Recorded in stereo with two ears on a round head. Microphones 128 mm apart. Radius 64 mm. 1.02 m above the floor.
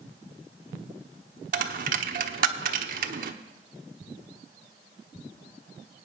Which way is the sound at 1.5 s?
65° right (ahead or behind).